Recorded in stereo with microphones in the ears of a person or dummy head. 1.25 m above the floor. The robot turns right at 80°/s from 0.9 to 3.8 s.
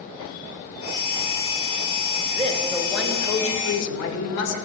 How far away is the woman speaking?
About 2 m.